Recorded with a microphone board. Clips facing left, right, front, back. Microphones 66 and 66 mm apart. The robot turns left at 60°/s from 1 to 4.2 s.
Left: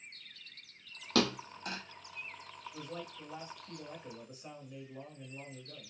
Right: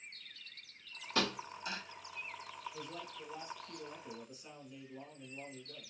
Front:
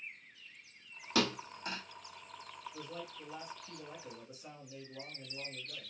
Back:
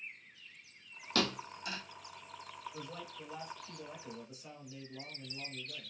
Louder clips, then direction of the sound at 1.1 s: Left 5 dB, front 1 dB; 80° left.